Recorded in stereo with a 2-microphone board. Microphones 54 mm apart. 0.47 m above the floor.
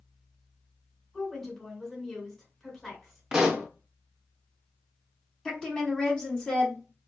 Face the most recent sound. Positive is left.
turn(degrees=15)  # may be behind; listen again after turning